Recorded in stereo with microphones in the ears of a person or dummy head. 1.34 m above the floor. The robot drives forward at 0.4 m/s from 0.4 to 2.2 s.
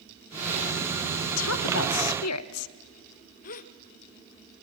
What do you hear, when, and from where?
1.4 s a woman speaking: 70° left (ahead or behind), 1.1 m; by 2.7 s 90° left, 1.0 m
3.4 s a gasp: 45° left (ahead or behind), 0.8 m